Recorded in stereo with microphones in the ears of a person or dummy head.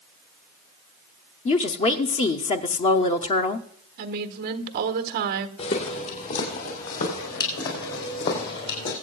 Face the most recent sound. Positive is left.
turn(degrees=65)  # may be behind; listen again after turning